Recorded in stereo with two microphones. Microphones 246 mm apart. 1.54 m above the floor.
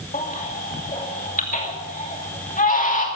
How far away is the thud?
No thud in this recording.